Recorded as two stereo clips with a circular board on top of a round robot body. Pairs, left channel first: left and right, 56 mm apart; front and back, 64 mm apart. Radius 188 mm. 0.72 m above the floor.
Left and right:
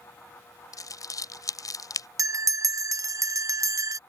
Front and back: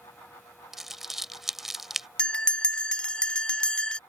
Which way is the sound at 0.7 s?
95° left.